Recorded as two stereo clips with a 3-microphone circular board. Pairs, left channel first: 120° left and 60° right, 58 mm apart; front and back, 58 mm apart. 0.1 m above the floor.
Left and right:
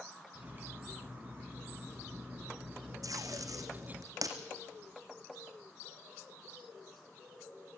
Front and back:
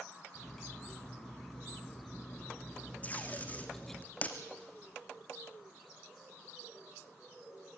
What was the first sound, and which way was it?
Cutlery clinking, 75° right.